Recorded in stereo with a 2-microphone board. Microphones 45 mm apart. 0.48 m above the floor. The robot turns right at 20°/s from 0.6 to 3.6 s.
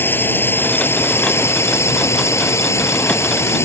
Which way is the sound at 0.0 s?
50° left.